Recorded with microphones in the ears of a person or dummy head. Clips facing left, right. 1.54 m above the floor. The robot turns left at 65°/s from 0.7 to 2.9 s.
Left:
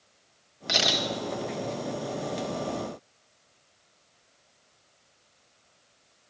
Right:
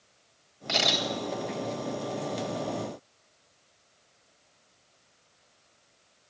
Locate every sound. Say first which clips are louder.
0.7 s a camera shutter: even; 20° left (ahead or behind), 1.6 m; by 1.1 s 5° right (ahead or behind), 1.6 m